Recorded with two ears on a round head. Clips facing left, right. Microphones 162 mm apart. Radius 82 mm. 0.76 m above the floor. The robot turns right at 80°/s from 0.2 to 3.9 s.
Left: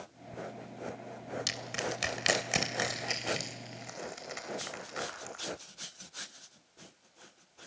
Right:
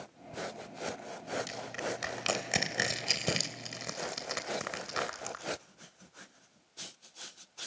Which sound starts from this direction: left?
Crushing, at 1.5 s.